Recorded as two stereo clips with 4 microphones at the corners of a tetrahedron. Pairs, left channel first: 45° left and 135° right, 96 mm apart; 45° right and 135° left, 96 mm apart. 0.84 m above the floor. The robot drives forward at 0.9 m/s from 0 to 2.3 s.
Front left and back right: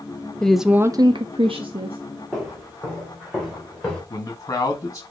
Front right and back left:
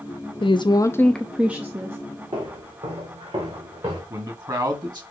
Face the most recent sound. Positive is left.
turn(degrees=95)